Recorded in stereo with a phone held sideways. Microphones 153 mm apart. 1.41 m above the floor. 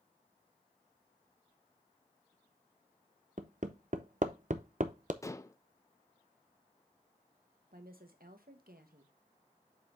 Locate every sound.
3.4 s hammering: 55° right (ahead or behind), 0.7 m
5.2 s dishes clattering: 20° left (ahead or behind), 0.5 m
7.7 s a woman speaking: 75° right (ahead or behind), 1.3 m